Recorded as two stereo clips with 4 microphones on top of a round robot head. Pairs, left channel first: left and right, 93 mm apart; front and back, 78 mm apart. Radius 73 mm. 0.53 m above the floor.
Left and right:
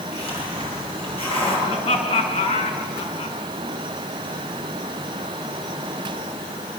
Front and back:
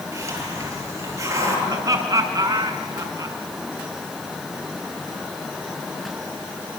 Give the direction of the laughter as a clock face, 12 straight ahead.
7 o'clock.